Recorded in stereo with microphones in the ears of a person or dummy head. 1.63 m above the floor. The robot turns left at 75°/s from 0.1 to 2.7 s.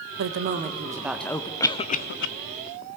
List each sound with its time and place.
0.2 s a woman speaking: 105° right, 1.1 m; by 1.5 s 155° left, 1.1 m
1.6 s a cough: 10° left (ahead or behind), 0.6 m; by 2.3 s 65° left (ahead or behind), 0.6 m